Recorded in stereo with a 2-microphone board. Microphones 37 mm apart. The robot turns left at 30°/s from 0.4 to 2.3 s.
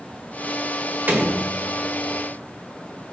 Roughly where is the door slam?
Right.